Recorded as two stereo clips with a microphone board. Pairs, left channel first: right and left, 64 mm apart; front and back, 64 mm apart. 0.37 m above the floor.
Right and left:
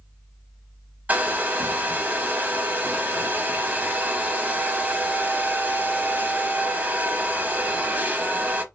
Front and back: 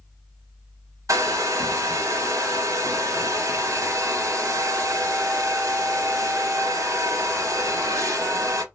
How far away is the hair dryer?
About 0.6 m.